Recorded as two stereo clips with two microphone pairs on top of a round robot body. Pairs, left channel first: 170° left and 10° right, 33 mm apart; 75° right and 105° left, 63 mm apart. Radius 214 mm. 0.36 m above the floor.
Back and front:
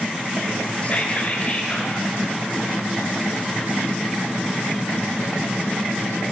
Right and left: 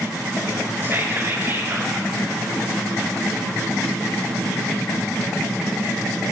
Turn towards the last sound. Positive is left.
turn(degrees=150)